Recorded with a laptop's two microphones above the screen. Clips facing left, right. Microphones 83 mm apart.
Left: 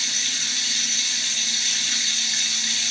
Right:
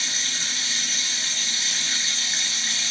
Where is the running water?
40° right (ahead or behind), 1.1 m.